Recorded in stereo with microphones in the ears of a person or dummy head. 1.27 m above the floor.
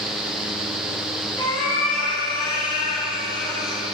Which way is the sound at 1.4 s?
30° left (ahead or behind).